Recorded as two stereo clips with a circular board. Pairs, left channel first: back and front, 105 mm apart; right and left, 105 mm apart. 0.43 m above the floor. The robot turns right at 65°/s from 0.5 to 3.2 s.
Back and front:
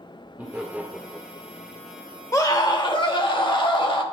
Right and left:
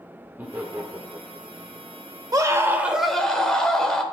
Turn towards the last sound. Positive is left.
turn(degrees=-175)